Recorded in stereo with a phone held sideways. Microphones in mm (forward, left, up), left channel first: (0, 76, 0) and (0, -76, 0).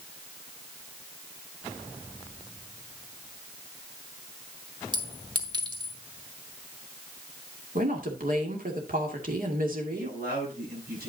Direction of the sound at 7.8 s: 65° right (ahead or behind).